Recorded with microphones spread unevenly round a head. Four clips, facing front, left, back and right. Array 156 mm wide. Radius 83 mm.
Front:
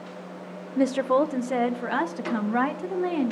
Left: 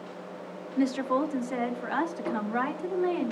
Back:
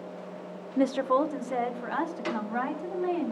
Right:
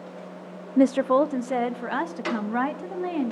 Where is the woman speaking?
70° right, 0.6 m; by 3.3 s 35° right, 2.5 m.